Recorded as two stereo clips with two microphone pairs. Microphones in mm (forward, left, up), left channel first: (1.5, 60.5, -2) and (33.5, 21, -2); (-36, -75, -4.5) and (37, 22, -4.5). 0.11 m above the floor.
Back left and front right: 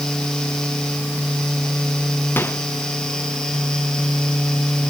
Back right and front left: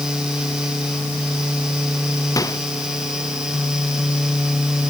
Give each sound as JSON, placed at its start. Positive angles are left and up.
{"t": 2.4, "sound": "a microwave", "azimuth_deg": 175}